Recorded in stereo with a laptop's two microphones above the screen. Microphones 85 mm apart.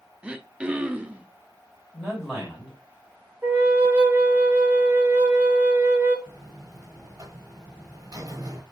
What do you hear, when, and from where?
0.2 s throat clearing: 15° right (ahead or behind), 0.5 m
1.9 s a man speaking: 10° left (ahead or behind), 2 m
3.4 s a flute: 20° right (ahead or behind), 1.1 m
6.3 s a buzzer: 45° right (ahead or behind), 0.9 m